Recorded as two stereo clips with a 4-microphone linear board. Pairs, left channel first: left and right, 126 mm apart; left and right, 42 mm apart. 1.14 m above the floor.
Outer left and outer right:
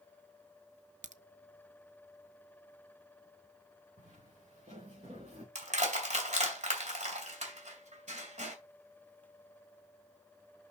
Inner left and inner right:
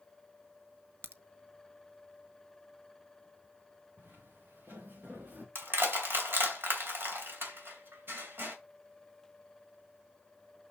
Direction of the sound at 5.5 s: 65° right (ahead or behind).